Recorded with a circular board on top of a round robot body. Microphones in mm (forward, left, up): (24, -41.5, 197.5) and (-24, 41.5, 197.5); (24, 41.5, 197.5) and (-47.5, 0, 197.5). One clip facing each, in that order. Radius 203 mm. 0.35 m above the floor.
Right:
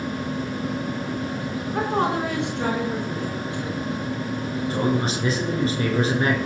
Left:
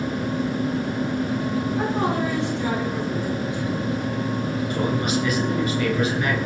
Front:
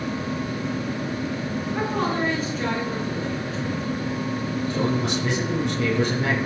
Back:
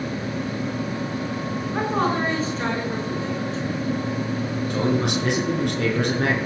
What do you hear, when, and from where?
1.7 s a woman speaking: 90° right, 6 m
4.7 s a man speaking: 120° right, 6.5 m